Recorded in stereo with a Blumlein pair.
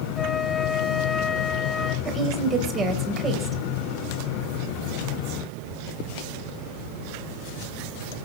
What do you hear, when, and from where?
0.2 s a flute: 20° left, 1.1 m
2.0 s a woman speaking: 20° right, 5.5 m